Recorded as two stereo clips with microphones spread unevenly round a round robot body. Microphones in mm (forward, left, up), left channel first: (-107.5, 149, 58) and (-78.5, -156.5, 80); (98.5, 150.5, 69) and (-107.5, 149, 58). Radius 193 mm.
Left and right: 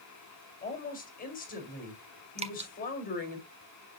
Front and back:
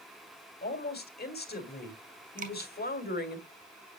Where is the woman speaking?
35° left, 2.0 m.